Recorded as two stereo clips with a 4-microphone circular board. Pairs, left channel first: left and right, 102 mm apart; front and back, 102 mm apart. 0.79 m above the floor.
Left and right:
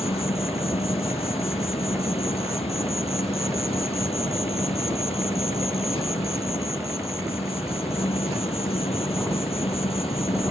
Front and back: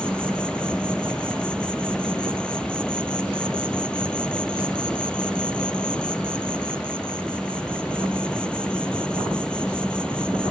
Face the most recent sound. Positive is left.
turn(degrees=80)